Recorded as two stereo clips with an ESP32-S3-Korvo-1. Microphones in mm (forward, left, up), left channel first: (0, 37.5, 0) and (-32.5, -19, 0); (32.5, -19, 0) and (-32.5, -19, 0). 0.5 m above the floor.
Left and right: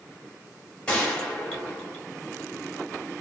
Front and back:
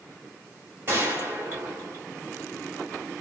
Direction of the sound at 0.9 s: 130° left.